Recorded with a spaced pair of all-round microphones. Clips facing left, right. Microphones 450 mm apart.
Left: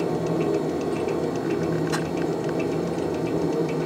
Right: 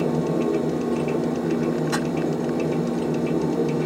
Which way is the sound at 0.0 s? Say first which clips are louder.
Right 2 dB; 50° right (ahead or behind).